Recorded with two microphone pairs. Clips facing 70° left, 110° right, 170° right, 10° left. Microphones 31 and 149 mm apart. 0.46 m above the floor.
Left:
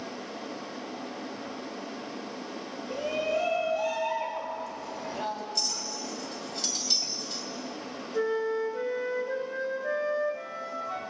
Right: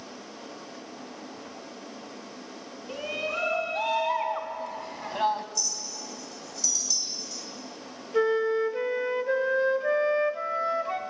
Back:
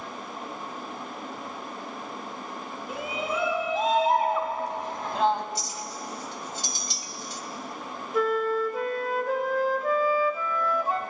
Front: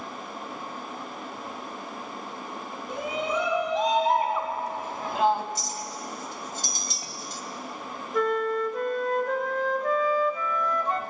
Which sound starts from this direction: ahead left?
A clink, at 5.5 s.